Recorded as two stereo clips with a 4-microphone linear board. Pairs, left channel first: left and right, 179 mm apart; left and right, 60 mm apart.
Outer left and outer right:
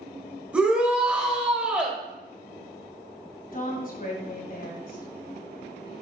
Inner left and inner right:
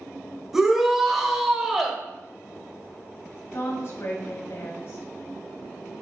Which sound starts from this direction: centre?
A shout, at 0.5 s.